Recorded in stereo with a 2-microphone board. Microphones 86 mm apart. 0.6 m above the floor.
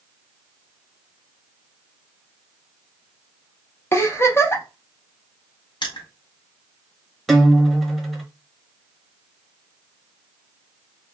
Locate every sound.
3.9 s a giggle: 30° left (ahead or behind), 0.6 m
5.8 s crushing: 65° left (ahead or behind), 0.9 m
7.3 s a guitar: centre (ahead or behind), 0.6 m